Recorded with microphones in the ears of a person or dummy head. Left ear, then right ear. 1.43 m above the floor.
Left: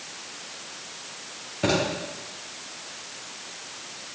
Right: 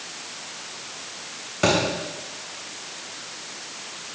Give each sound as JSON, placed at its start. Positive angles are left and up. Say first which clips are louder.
{"t": 1.6, "sound": "a thud", "louder": "right 4 dB", "side_deg": -40, "distance_m": 6.5}